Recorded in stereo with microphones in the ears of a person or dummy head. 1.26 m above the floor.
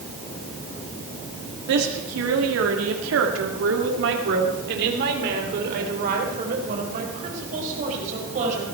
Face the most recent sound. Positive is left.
turn(degrees=-40)  # may be behind; listen again after turning